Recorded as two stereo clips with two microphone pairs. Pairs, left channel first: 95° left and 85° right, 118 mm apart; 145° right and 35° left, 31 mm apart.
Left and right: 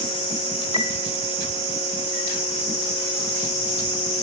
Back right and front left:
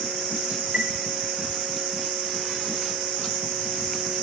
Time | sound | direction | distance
0.7 | a chime | 75° left | 1.0 m